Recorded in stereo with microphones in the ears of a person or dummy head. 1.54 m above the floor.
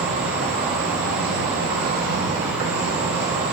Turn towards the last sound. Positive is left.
turn(degrees=-55)  # may be behind; listen again after turning